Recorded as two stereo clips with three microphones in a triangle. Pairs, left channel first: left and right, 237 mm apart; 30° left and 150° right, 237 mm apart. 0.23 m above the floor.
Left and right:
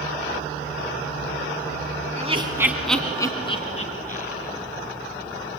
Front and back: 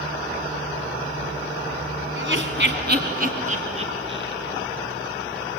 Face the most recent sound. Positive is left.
turn(degrees=140)